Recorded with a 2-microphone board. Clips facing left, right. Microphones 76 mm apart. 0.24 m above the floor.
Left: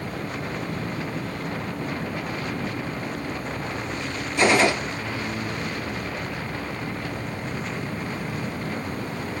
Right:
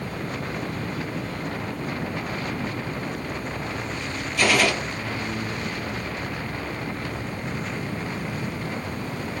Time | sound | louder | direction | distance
4.4 | a gunshot | left 2 dB | 25° left (ahead or behind) | 1.2 m